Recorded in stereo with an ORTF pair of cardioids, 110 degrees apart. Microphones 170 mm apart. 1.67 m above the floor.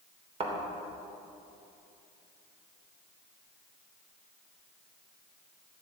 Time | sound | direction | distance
0.4 | a thud | 40° right | 3 m